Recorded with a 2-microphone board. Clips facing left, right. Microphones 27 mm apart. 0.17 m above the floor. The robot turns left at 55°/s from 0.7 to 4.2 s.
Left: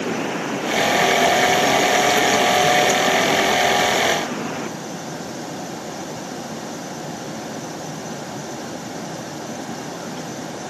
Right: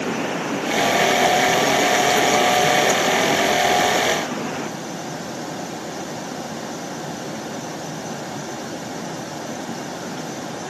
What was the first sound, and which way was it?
Only background noise.